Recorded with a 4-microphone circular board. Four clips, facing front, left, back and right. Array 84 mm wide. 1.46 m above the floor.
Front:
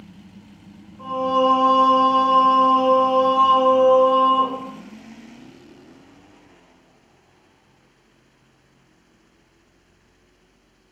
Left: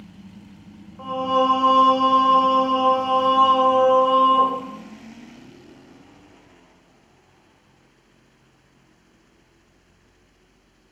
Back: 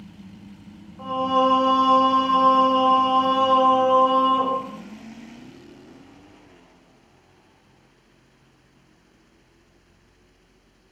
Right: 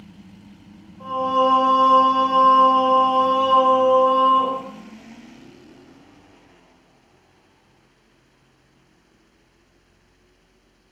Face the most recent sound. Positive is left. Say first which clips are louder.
# right 1 dB, front 1 dB
turn(degrees=110)